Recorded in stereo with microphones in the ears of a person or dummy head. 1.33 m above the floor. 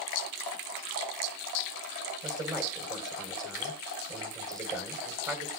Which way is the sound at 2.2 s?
20° right (ahead or behind).